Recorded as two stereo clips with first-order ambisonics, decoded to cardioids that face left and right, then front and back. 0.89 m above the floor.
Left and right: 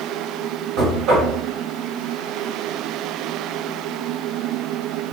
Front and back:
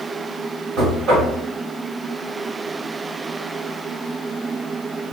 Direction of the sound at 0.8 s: 130° right.